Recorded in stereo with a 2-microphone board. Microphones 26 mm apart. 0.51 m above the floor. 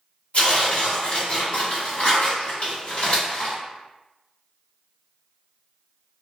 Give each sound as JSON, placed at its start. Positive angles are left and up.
{"t": 0.3, "sound": "tearing paper", "side_deg": 55, "distance_m": 1.5}